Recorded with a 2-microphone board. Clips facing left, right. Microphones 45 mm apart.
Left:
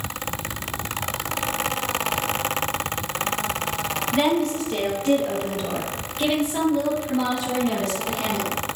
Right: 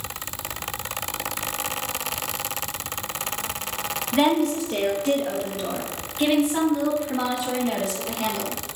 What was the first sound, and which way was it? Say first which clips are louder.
A woman speaking: right 2 dB; 5° right (ahead or behind).